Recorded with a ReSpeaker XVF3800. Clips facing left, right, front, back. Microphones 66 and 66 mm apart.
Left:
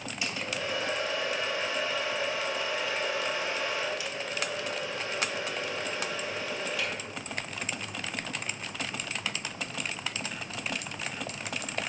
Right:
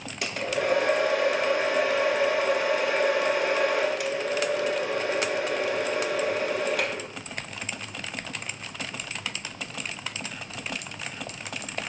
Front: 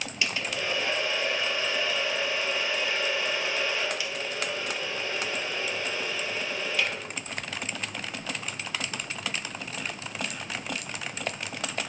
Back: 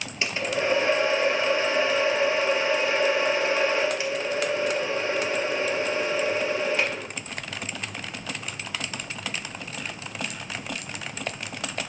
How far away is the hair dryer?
About 1.0 m.